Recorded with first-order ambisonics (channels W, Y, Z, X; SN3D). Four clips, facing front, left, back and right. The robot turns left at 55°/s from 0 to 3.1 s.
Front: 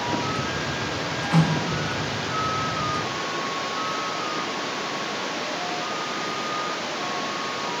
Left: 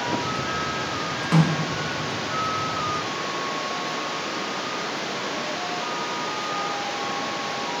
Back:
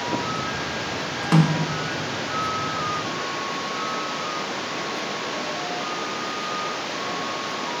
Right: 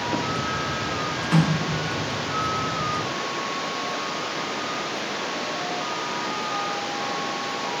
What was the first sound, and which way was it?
A snare drum, 175° left.